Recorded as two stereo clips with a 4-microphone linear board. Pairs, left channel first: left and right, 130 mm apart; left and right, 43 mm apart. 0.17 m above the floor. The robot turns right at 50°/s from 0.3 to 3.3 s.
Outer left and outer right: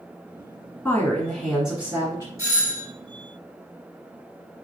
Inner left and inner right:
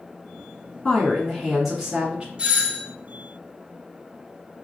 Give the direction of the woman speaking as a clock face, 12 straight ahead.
7 o'clock.